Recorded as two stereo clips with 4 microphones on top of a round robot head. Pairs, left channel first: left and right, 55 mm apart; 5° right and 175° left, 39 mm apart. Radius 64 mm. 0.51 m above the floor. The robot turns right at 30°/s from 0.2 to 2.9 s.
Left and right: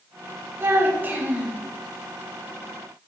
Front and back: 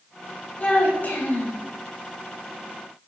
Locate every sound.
0.6 s a child speaking: 50° right, 0.8 m; by 1.6 s 20° right, 0.8 m